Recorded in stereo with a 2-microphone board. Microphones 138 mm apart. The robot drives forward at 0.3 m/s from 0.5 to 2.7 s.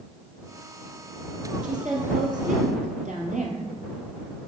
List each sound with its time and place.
1.6 s a woman speaking: 65° right (ahead or behind), 2.5 m